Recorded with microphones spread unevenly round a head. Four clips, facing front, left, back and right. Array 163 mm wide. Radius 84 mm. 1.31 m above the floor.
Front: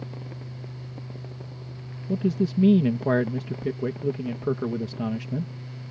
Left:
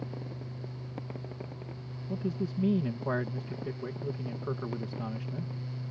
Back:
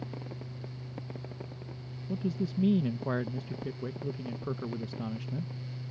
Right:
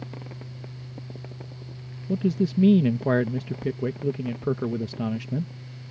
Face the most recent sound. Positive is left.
turn(degrees=-45)